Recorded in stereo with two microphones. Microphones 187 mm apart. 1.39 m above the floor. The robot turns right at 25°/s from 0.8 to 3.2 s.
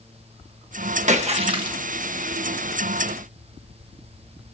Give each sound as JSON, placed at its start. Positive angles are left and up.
{"t": 1.1, "sound": "a splash", "side_deg": -40, "distance_m": 1.4}